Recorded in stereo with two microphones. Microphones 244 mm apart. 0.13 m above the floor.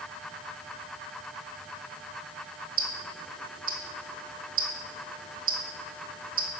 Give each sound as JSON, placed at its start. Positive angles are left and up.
{"t": 2.8, "sound": "ticking", "side_deg": -65, "distance_m": 0.8}